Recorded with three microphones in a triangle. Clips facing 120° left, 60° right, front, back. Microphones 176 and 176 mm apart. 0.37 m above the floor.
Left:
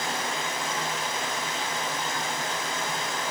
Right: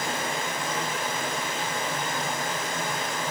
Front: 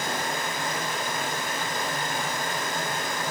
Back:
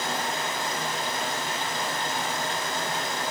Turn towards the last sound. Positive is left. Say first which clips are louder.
# right 1 dB, even
turn(degrees=-35)